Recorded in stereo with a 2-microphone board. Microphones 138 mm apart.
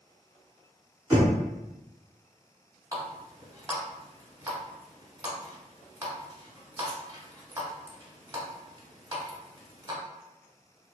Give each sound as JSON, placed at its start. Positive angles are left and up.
{"t": 1.1, "sound": "knocking", "side_deg": -25, "distance_m": 1.2}
{"t": 2.9, "sound": "a running tap", "side_deg": -25, "distance_m": 0.8}